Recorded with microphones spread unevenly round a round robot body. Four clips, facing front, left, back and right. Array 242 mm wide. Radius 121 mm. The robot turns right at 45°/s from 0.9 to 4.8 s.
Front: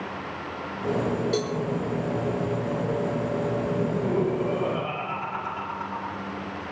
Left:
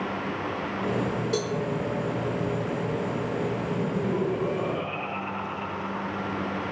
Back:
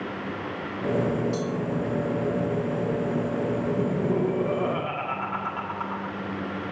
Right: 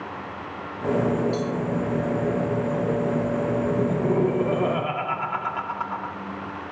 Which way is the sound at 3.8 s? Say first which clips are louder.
Right 4 dB, even; 130° right.